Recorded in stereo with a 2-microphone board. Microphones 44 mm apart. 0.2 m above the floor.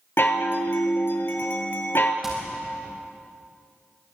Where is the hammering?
15° right (ahead or behind), 6 m.